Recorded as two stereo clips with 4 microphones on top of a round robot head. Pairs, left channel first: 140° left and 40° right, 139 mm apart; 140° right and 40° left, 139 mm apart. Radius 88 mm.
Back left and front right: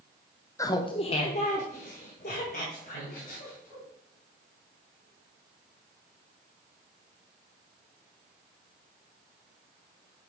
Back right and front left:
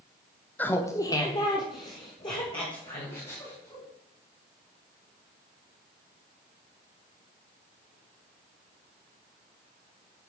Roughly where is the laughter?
Behind.